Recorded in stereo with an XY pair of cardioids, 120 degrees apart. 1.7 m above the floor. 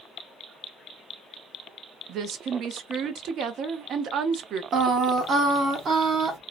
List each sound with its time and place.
2.1 s a woman speaking: 60° right, 0.6 m
4.7 s singing: 45° right, 0.9 m